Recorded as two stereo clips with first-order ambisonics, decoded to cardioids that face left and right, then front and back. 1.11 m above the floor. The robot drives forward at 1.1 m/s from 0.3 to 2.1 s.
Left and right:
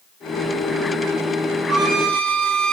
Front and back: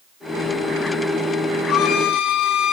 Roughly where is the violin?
Ahead right.